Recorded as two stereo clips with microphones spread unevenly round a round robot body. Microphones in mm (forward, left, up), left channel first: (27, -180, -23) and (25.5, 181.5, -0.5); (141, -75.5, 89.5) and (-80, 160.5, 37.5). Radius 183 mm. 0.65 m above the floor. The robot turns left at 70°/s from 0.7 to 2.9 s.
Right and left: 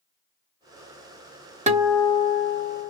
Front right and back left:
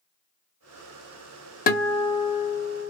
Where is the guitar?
20° left, 0.7 m; by 2.9 s 70° right, 0.7 m.